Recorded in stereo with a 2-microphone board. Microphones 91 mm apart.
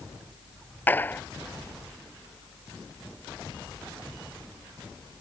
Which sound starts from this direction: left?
A clap, at 0.9 s.